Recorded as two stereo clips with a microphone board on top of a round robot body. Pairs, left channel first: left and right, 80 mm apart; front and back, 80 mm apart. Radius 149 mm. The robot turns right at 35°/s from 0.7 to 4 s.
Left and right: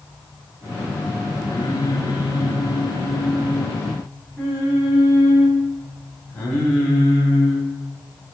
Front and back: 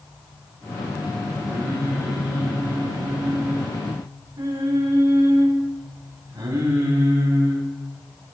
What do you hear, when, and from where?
1.5 s singing: 75° left, 6 m; by 7.7 s 165° left, 6 m